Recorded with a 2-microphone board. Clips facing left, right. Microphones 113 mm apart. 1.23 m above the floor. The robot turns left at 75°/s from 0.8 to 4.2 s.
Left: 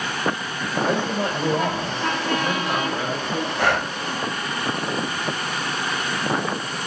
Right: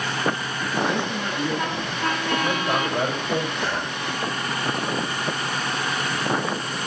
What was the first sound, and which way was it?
A man speaking, 110° left.